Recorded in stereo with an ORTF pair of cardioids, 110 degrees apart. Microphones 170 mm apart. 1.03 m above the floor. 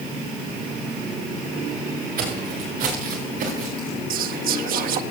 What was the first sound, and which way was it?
Footsteps, 60° right.